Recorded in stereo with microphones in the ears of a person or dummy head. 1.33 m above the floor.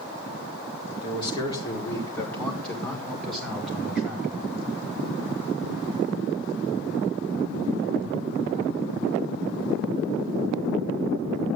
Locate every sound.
1.0 s a man speaking: 30° left (ahead or behind), 3.5 m; by 4.7 s 5° right (ahead or behind), 7.5 m